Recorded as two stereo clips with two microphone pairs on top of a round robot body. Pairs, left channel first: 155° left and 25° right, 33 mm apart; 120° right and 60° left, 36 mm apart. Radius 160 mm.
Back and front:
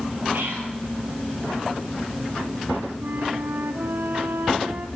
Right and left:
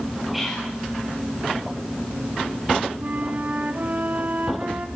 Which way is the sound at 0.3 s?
25° right.